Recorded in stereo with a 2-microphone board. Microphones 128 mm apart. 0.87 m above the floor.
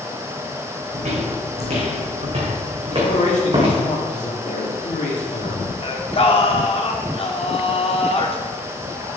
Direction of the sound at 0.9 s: 60° right (ahead or behind).